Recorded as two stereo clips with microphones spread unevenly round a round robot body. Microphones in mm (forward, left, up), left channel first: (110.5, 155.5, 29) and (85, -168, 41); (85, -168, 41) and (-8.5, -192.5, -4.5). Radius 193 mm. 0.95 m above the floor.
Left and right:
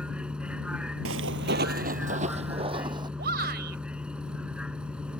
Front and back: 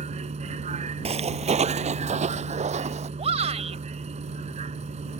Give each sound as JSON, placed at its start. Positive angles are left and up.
{"t": 0.0, "sound": "a vehicle", "azimuth_deg": 180}
{"t": 1.1, "sound": "footsteps", "azimuth_deg": -140}
{"t": 3.2, "sound": "a shout", "azimuth_deg": -160}